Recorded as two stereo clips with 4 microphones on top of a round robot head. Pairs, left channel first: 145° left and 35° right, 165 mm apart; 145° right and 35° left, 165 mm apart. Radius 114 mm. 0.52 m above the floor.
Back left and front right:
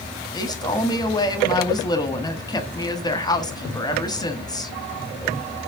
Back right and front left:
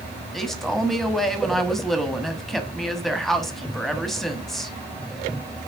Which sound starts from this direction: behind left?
A man speaking, at 0.3 s.